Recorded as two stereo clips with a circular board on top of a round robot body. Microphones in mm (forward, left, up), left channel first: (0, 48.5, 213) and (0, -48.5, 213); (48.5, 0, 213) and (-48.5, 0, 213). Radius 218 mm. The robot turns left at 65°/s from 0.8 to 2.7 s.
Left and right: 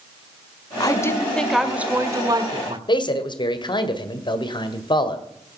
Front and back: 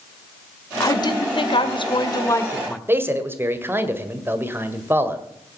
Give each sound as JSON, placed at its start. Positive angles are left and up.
{"t": 0.8, "sound": "a woman speaking", "azimuth_deg": 50, "distance_m": 1.9}
{"t": 2.9, "sound": "a man speaking", "azimuth_deg": 115, "distance_m": 2.0}